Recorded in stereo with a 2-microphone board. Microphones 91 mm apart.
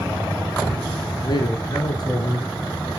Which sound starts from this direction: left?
A man speaking, at 1.2 s.